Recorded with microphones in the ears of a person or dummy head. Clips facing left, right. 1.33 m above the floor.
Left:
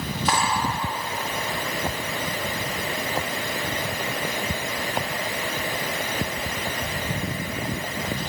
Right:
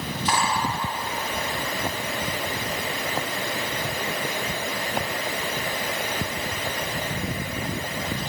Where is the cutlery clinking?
55° left (ahead or behind), 1.4 m.